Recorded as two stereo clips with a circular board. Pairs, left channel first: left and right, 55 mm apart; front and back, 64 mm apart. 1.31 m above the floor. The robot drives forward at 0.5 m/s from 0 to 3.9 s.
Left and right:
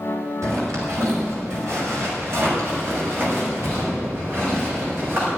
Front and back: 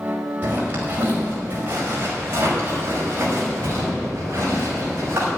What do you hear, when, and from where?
0.4 s a zipper: 120° right, 5 m; by 5.3 s 135° right, 6 m